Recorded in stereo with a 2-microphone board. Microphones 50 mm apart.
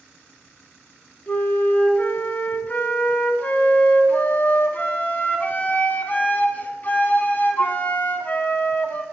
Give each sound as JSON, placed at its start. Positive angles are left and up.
{"t": 1.3, "sound": "a flute", "side_deg": 35, "distance_m": 0.6}